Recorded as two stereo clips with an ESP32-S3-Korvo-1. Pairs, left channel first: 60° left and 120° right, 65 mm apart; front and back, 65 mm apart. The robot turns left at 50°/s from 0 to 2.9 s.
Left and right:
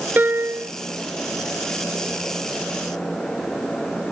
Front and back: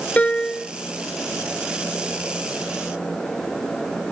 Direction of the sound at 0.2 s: 65° right.